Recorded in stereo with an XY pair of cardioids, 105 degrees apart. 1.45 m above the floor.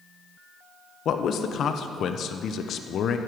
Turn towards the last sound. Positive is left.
turn(degrees=60)